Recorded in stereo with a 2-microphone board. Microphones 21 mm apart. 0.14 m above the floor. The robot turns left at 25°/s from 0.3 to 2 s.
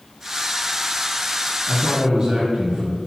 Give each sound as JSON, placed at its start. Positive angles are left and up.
{"t": 1.7, "sound": "a man speaking", "side_deg": -30, "distance_m": 1.3}